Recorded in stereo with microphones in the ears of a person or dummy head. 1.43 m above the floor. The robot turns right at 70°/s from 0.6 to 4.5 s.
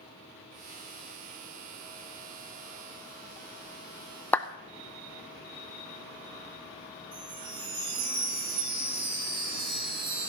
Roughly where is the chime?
Right.